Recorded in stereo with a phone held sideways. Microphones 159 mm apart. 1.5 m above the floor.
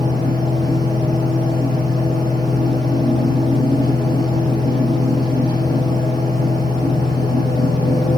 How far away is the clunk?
No clunk in this recording.